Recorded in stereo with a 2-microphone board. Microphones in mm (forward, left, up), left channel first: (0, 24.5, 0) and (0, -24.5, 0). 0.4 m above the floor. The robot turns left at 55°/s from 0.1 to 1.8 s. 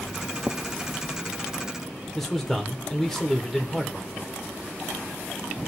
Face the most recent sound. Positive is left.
turn(degrees=5)  # may be behind; listen again after turning